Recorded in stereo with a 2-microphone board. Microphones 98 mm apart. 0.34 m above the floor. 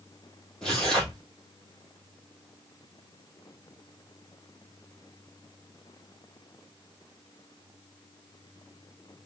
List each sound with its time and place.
0.6 s tearing paper: 5° left (ahead or behind), 2.5 m